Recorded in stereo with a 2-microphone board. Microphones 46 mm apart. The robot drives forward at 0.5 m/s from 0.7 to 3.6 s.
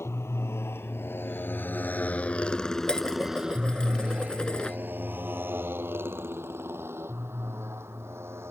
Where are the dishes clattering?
15° left (ahead or behind).